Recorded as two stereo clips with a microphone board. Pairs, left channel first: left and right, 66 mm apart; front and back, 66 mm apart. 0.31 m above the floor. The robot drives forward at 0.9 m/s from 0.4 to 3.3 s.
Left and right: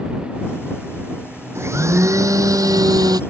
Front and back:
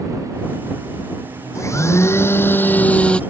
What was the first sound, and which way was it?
A blender, 40° right.